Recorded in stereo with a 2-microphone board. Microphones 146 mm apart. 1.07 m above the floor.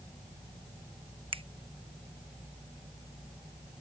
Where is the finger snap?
40° right (ahead or behind).